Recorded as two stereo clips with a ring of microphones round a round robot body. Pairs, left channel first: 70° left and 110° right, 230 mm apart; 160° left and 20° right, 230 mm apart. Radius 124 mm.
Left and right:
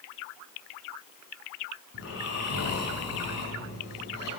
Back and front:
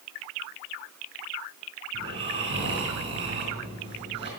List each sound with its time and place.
1.9 s snoring: 45° left, 4.5 m